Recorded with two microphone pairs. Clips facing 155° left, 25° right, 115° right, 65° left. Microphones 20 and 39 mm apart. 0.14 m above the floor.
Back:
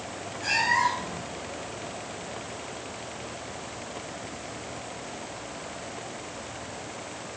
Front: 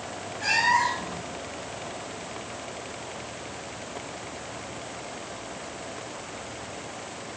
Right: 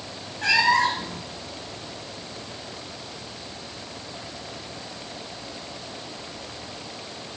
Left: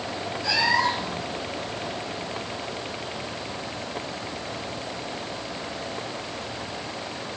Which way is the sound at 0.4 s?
95° right.